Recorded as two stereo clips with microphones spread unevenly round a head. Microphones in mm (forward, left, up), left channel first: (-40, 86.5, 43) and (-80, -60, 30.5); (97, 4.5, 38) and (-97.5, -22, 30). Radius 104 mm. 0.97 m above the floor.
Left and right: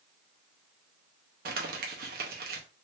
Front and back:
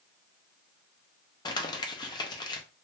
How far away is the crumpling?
About 0.6 m.